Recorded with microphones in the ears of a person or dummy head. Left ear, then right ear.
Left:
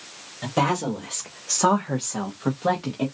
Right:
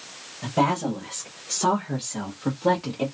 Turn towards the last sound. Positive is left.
turn(degrees=10)  # may be behind; listen again after turning